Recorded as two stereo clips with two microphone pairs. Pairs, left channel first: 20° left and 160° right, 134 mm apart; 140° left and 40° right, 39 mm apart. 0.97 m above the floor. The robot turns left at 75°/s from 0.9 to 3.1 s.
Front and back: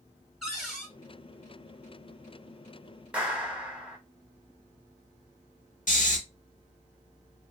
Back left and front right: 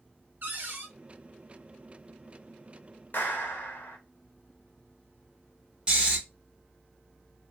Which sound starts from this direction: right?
A cupboard door, at 0.4 s.